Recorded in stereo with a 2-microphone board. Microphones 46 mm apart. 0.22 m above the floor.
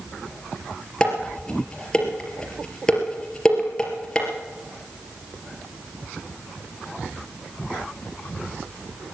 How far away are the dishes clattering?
About 3.5 m.